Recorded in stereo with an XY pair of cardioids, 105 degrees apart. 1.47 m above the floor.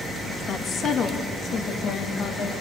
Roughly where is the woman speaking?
Ahead left.